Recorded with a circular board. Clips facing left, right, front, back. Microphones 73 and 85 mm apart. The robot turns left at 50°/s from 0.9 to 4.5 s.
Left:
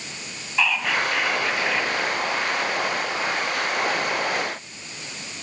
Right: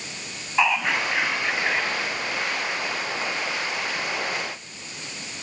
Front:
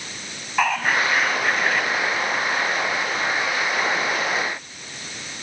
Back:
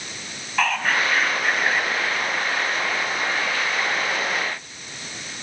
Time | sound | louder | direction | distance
0.6 | whispering | right 1 dB, front 1 dB | 65° right | 1.1 m